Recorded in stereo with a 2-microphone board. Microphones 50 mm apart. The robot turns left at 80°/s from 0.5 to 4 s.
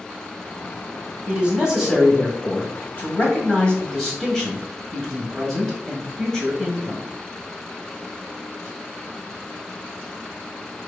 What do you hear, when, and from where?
1.3 s a man speaking: 120° right, 1.8 m; by 7.0 s 20° left, 1.8 m